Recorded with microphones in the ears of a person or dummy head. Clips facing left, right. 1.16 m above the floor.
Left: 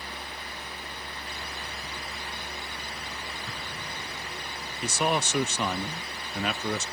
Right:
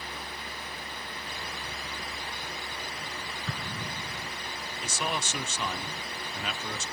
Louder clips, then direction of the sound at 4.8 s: Left 7 dB; 50° left (ahead or behind).